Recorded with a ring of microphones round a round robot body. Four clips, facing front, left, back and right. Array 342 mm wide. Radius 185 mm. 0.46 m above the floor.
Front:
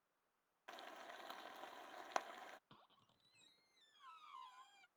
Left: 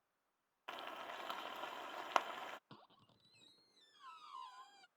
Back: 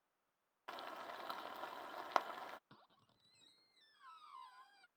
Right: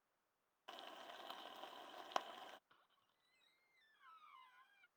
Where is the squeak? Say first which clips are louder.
Left 13 dB, back 2 dB; 95° left.